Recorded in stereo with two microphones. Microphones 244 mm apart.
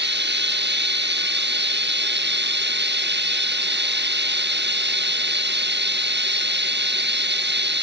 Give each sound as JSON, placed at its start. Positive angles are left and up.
{"t": 0.0, "sound": "running water", "side_deg": -45}